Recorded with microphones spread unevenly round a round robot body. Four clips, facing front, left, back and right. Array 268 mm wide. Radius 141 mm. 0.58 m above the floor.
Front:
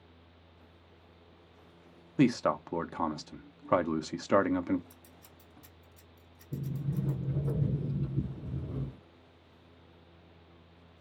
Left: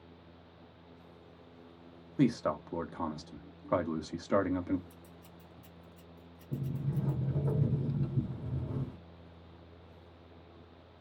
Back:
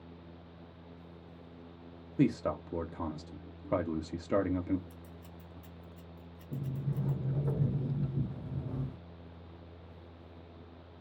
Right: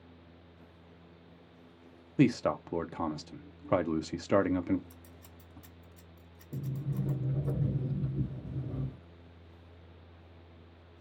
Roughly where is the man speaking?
Right.